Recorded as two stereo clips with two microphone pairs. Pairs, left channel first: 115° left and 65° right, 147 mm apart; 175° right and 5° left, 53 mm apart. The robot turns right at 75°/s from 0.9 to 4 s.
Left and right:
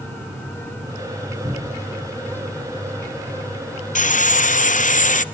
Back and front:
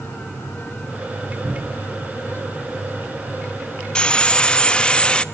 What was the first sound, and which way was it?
A cupboard door, 15° right.